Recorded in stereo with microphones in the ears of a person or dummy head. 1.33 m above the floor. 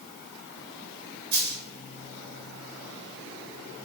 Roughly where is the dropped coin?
Right.